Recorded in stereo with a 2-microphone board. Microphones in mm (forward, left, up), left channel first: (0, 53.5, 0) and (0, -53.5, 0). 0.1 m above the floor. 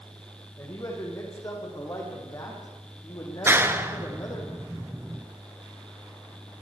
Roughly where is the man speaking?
Left.